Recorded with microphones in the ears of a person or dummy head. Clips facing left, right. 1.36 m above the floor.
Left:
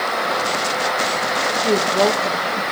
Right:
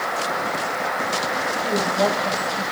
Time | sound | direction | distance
1.6 | a woman speaking | 80° left | 4.5 m